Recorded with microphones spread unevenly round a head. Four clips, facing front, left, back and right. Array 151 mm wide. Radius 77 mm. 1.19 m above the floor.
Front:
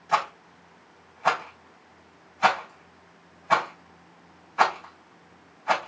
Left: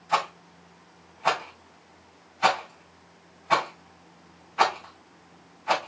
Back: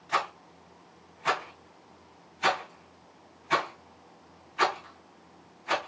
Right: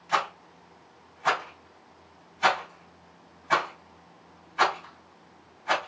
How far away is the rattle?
About 4 m.